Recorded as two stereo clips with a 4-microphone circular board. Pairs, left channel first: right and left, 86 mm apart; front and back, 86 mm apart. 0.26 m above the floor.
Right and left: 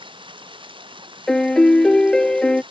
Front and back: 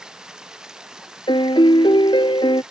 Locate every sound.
0.0 s running water: 100° left
1.3 s a piano: 10° right